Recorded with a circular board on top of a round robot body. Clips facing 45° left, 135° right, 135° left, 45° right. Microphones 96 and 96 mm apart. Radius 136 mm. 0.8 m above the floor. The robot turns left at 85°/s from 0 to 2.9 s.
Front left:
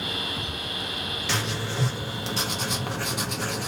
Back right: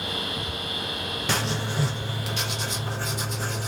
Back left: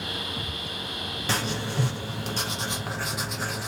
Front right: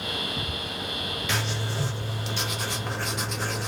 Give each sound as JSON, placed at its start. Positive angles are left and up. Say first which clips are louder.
{"t": 1.3, "sound": "writing", "louder": "back right 2 dB, back left 3 dB", "azimuth_deg": -175, "distance_m": 1.1}